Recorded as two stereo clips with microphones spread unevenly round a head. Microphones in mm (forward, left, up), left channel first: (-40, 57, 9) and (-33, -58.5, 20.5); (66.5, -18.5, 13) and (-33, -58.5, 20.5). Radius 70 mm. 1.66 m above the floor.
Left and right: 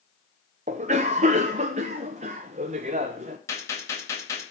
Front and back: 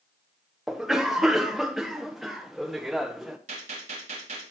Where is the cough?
75° right, 0.9 m.